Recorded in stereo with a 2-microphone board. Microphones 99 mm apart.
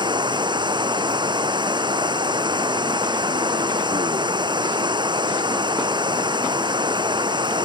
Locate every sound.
0.0 s running water: 50° right (ahead or behind)